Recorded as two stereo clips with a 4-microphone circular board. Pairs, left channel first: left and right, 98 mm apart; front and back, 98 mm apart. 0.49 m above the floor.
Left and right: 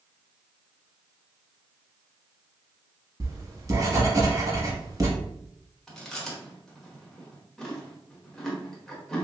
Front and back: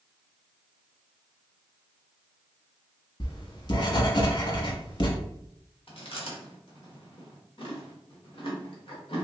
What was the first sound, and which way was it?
Writing, 35° right.